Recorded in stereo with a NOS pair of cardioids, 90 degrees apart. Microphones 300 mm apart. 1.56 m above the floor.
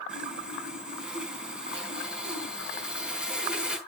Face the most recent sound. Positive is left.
turn(degrees=-5)